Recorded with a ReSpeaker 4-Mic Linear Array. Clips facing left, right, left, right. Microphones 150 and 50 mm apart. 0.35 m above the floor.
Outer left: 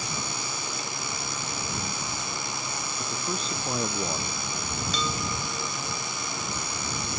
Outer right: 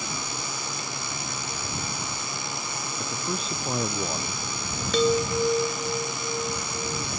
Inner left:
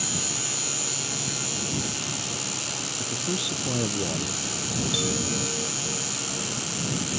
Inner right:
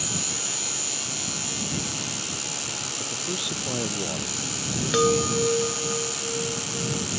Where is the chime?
65° right (ahead or behind).